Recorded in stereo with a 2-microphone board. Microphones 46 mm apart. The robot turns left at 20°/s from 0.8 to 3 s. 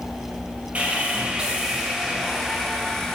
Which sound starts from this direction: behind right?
Sawing, at 0.8 s.